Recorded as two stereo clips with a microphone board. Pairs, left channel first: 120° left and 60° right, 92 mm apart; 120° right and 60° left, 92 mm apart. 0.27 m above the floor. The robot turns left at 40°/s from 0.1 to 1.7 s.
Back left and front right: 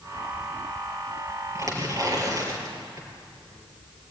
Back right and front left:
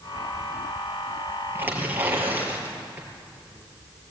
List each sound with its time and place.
1.6 s tearing paper: 5° right, 4.5 m; by 3.1 s 10° right, 4.5 m